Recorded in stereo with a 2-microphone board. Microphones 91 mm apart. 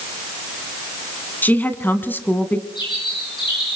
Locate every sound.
1.4 s a woman speaking: 20° left (ahead or behind), 1.7 m; by 2.6 s 15° left (ahead or behind), 1.6 m
2.8 s a bird: 60° left (ahead or behind), 5 m